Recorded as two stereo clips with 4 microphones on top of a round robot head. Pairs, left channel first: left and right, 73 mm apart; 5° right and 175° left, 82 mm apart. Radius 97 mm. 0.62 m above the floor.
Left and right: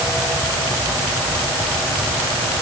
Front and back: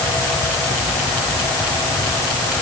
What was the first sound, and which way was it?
Only background noise.